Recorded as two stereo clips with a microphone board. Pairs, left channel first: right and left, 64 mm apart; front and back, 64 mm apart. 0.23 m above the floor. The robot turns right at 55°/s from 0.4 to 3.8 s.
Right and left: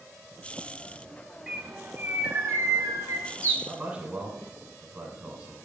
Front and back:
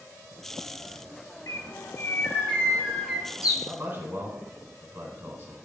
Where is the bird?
5° left, 0.7 m; by 3.5 s 120° left, 0.7 m.